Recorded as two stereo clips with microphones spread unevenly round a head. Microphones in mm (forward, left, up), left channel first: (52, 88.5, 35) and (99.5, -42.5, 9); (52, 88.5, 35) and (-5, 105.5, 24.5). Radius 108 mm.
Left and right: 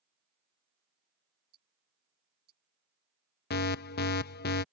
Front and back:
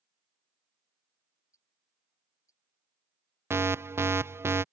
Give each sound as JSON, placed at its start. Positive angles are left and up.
{"t": 1.5, "sound": "ticking", "azimuth_deg": -85}
{"t": 3.5, "sound": "an alarm", "azimuth_deg": 115}